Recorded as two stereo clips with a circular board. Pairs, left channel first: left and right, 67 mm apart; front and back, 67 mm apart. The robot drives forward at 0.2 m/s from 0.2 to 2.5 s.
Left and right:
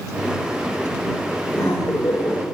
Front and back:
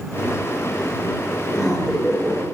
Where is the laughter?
95° left, 8 m.